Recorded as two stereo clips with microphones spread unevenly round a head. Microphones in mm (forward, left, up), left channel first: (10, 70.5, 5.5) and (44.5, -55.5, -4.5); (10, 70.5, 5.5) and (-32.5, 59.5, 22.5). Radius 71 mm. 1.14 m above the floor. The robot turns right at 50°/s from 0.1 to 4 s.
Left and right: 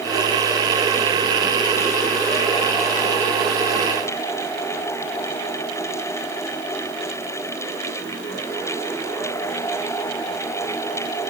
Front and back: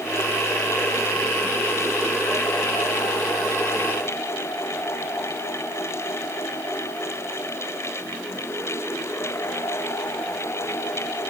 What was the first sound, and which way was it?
Only background noise.